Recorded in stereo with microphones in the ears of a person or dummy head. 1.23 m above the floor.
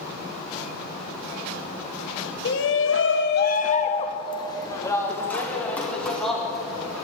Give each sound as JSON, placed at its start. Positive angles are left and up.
{"t": 2.5, "sound": "a shout", "side_deg": 55, "distance_m": 1.0}